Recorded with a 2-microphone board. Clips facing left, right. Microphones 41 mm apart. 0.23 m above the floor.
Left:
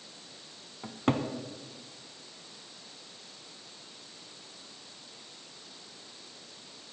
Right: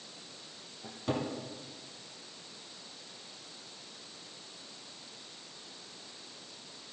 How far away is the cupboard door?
About 0.9 m.